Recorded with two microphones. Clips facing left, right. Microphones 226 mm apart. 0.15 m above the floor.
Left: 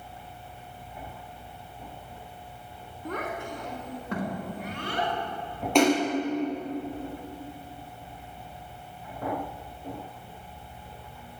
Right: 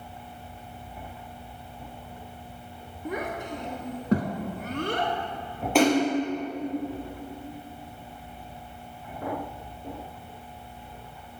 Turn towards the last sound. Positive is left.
turn(degrees=-5)  # may be behind; listen again after turning